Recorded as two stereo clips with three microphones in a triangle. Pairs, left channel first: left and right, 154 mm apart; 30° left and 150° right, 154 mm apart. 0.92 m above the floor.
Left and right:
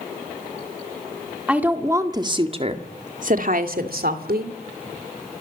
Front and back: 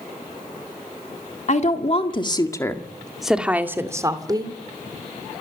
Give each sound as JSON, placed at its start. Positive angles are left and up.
{"t": 1.5, "sound": "a woman speaking", "azimuth_deg": -5, "distance_m": 2.5}